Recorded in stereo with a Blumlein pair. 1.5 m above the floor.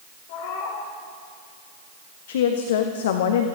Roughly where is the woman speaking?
Ahead left.